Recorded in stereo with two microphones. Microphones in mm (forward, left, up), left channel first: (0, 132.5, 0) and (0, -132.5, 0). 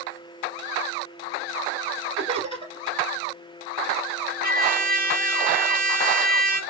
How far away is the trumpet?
About 1.9 m.